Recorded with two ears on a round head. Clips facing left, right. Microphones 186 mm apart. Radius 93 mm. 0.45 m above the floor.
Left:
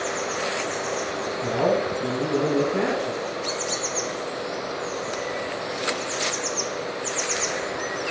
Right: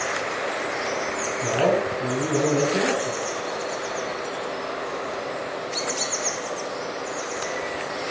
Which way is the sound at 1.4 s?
25° right (ahead or behind).